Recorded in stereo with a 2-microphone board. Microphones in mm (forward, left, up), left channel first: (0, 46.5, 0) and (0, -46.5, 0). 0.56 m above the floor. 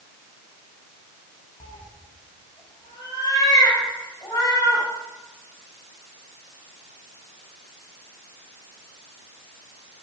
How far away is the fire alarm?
No fire alarm in this recording.